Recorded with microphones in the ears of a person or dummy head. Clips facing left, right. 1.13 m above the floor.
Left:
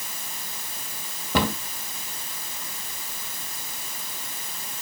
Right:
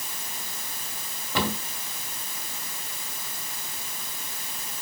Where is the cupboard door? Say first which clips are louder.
Left 4 dB; 50° left (ahead or behind), 1.9 m.